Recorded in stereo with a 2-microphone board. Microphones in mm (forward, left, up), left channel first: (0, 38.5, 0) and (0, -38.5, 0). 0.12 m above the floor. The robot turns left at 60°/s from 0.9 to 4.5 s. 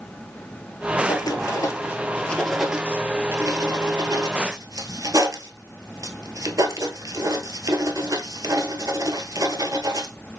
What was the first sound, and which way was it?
Writing, 60° left (ahead or behind).